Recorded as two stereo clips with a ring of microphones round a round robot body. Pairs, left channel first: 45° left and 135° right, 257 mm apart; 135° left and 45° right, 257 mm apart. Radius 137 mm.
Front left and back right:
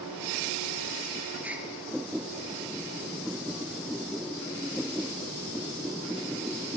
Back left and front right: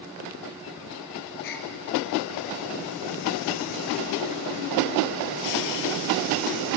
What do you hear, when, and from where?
1.4 s a gasp: 140° left, 3.5 m